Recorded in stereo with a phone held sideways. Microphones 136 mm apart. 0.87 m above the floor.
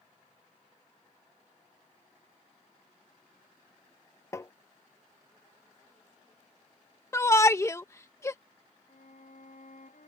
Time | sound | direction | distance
4.3 | tapping | 20° left (ahead or behind) | ?
7.1 | a shout | 20° left (ahead or behind) | ?
8.9 | a violin | 65° left (ahead or behind) | ?